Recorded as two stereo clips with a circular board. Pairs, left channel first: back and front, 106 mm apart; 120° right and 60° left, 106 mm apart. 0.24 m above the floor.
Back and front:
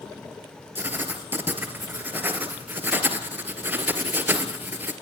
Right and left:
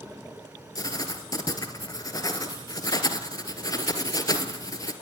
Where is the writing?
70° right, 2.5 m.